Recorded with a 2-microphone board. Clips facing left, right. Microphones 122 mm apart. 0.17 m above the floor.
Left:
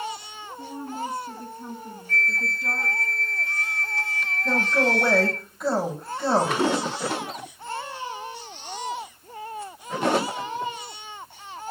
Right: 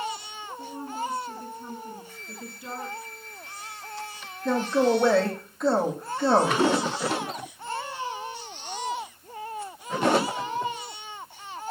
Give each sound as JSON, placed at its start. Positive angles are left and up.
{"t": 0.6, "sound": "a woman speaking", "side_deg": 45, "distance_m": 4.5}
{"t": 2.1, "sound": "a flute", "side_deg": -10, "distance_m": 0.8}
{"t": 4.5, "sound": "a man speaking", "side_deg": 5, "distance_m": 8.5}